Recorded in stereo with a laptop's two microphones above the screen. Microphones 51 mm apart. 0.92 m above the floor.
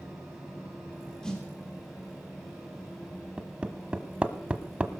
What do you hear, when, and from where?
0.0 s a fan: centre (ahead or behind), 8 m
1.2 s a snare drum: 15° left (ahead or behind), 3.5 m
3.4 s hammering: 25° right (ahead or behind), 1.3 m